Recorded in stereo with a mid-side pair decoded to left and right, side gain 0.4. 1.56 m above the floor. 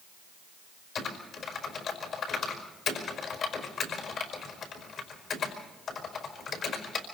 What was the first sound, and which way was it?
Typing on a keyboard, 65° left.